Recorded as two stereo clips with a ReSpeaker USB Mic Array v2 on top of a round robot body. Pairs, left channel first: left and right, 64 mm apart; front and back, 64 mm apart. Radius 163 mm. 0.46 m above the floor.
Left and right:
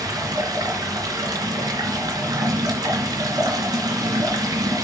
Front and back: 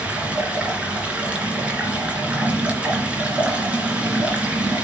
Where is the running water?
110° right, 2.5 m.